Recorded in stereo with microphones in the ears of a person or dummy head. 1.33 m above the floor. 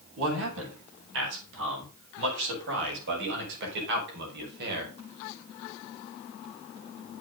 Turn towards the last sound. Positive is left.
turn(degrees=-60)  # may be behind; listen again after turning